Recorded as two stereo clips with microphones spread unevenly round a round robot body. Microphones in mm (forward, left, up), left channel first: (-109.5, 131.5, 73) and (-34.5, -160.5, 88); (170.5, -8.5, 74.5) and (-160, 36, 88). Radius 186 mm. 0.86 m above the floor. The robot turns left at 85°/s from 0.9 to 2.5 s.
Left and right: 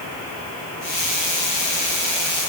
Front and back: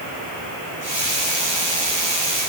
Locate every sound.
Only background noise.